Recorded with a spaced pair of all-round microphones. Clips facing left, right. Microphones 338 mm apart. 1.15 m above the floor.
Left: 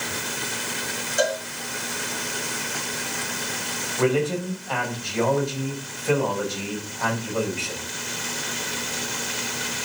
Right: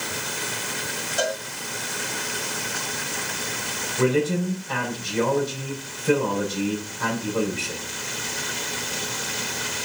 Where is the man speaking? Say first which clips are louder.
Right 1 dB; 25° right (ahead or behind), 5.5 m.